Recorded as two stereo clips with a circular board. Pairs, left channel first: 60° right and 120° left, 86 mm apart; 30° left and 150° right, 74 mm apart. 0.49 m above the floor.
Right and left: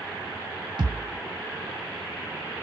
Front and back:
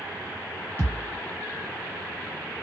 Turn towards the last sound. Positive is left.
turn(degrees=90)